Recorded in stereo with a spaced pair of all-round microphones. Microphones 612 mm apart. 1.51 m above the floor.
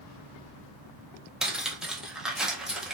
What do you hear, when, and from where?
1.4 s cutlery clinking: centre (ahead or behind), 0.6 m